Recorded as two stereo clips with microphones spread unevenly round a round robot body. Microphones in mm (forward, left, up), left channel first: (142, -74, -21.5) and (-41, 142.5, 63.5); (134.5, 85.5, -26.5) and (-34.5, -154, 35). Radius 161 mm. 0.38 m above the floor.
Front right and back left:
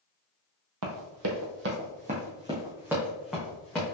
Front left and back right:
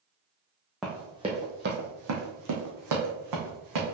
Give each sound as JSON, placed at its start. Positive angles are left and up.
{"t": 0.8, "sound": "running footsteps", "azimuth_deg": 150, "distance_m": 1.0}